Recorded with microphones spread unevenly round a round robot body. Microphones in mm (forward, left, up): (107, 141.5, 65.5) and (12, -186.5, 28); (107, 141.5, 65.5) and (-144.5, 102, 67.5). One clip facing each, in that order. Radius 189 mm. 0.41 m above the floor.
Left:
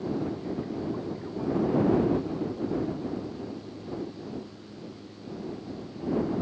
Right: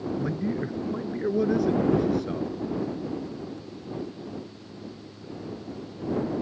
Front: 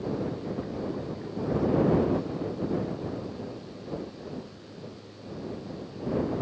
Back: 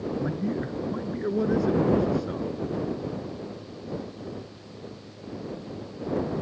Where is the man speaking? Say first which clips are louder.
Right 3 dB, back 4 dB; 130° right.